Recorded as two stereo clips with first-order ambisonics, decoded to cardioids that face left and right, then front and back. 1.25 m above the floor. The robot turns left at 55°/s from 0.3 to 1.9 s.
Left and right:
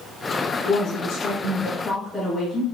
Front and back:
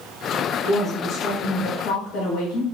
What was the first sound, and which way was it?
A woman speaking, 80° left.